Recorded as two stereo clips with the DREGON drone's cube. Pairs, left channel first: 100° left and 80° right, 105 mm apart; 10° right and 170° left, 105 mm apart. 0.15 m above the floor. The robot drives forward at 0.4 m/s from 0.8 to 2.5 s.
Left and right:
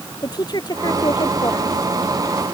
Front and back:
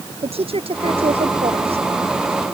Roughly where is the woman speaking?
Behind left.